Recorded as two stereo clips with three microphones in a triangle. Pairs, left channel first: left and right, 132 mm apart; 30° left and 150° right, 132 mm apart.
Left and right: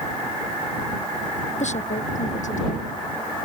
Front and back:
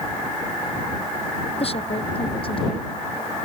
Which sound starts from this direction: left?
A woman speaking, at 1.6 s.